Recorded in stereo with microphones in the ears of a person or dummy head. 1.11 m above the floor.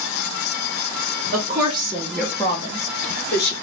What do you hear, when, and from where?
1.3 s a woman speaking: 40° right (ahead or behind), 0.8 m; by 3.5 s 50° left (ahead or behind), 1.0 m